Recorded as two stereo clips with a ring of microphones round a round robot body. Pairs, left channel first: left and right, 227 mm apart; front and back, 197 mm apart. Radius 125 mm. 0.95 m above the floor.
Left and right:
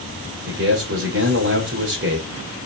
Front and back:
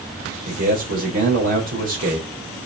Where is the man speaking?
135° right, 3 m.